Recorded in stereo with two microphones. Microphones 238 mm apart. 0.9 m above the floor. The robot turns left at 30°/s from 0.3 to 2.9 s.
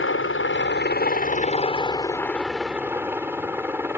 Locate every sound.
0.0 s a helicopter: 70° left; by 4.0 s 10° right